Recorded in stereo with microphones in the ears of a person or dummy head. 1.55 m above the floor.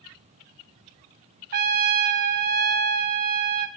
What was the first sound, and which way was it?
A trumpet, 50° right (ahead or behind).